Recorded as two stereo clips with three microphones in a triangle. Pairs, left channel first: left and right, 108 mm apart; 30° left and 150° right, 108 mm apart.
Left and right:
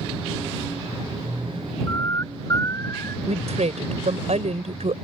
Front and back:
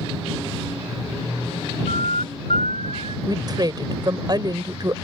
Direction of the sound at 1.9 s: 30° left.